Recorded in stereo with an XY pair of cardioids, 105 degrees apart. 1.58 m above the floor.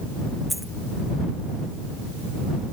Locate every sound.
0.5 s a dropped coin: straight ahead